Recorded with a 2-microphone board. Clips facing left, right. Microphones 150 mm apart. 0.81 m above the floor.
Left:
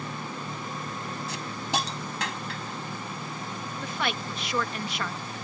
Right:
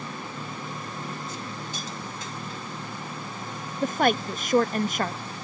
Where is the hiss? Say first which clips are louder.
Left 4 dB; 80° left.